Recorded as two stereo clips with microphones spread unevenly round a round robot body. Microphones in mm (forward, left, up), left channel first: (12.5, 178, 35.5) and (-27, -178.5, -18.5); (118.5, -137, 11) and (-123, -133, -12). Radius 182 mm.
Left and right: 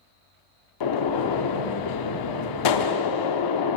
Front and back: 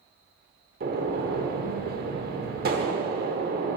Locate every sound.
0.8 s a gunshot: 120° left, 0.9 m